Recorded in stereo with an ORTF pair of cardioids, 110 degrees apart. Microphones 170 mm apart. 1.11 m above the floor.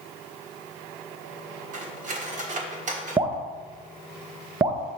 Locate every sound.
1.7 s cutlery clinking: 50° right, 1.5 m
3.2 s dripping: 25° right, 0.8 m